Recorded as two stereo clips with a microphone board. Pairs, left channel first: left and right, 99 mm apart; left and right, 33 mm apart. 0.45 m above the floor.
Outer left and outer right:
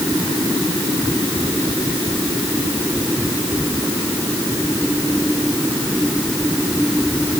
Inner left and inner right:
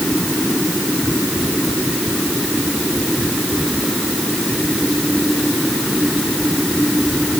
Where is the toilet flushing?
I don't hear a toilet flushing.